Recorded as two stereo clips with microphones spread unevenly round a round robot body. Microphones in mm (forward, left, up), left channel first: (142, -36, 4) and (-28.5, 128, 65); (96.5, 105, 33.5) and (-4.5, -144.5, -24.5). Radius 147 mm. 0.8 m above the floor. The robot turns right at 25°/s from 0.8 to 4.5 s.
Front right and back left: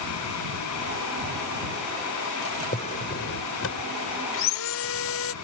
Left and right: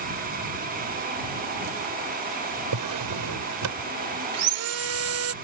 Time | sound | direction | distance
2.7 | a drawer | 115° right | ?
4.3 | sawing | 85° right | ?